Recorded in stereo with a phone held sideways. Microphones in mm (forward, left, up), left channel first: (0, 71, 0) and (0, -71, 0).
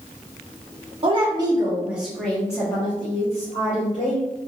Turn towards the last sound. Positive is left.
turn(degrees=60)  # may be behind; listen again after turning